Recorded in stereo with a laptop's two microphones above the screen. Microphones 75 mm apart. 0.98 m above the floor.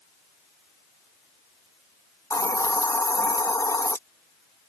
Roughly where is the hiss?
Left.